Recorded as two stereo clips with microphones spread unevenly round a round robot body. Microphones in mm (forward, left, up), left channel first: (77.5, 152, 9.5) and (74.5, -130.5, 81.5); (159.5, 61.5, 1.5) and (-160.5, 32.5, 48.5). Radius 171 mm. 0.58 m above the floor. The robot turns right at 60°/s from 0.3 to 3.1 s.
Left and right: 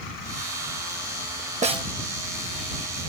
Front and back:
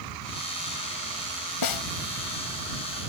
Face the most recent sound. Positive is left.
turn(degrees=65)